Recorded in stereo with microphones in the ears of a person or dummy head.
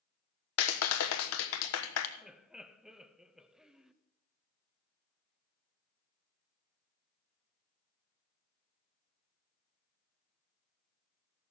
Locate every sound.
0.6 s a clap: 70° left (ahead or behind), 1.2 m
2.2 s laughter: 5° right (ahead or behind), 0.6 m